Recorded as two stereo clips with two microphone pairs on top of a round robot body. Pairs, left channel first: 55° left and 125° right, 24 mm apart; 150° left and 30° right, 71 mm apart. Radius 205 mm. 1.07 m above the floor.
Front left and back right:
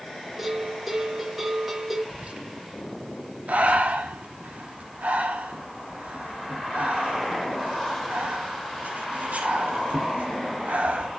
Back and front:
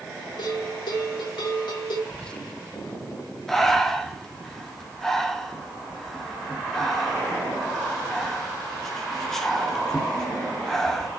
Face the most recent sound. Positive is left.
turn(degrees=-125)